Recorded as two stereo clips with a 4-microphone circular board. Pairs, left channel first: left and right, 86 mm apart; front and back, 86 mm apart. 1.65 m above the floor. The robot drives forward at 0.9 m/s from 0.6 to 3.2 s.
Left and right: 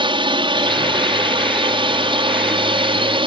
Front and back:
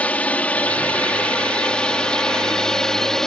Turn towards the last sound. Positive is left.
turn(degrees=-85)